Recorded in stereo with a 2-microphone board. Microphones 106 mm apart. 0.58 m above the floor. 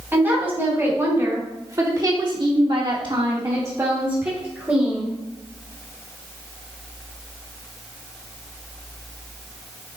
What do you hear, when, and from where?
0.1 s a woman speaking: 20° right (ahead or behind), 4 m; by 5.1 s 10° right (ahead or behind), 3.5 m